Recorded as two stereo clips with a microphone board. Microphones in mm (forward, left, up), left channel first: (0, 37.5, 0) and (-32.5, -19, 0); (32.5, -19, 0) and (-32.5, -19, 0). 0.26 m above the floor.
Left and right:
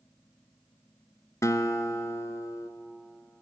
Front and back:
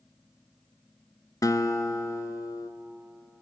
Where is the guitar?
25° left, 1.0 m.